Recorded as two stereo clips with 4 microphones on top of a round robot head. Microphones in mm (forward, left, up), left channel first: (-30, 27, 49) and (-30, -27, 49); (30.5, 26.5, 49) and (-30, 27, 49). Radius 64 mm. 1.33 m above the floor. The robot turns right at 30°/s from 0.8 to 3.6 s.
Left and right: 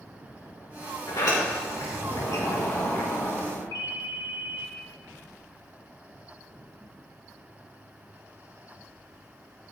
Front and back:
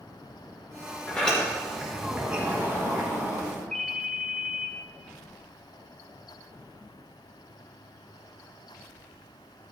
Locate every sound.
1.1 s a sliding door: 70° left, 5.5 m; by 3.6 s 145° left, 5.5 m
3.7 s a ringtone: 75° left, 1.3 m